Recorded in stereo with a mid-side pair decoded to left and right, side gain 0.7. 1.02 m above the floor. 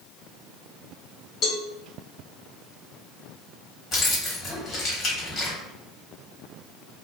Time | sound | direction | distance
1.4 | a cowbell | 50° left | 1.3 m
3.9 | keys jangling | 35° left | 1.4 m